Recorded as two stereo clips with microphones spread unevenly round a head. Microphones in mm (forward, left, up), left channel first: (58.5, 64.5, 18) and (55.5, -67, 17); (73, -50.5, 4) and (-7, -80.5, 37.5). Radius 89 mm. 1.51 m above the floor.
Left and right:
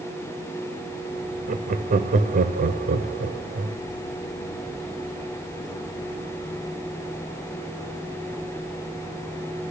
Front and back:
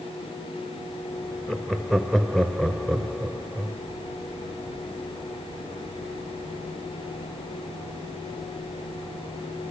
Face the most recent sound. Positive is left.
turn(degrees=-65)